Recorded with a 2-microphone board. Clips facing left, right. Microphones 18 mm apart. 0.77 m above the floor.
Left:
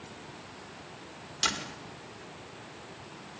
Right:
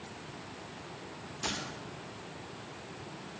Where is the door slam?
50° left (ahead or behind), 1.8 m.